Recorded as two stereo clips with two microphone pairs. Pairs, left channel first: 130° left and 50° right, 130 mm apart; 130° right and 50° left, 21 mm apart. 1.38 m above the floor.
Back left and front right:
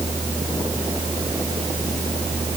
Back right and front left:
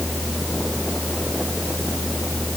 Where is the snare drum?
No snare drum in this recording.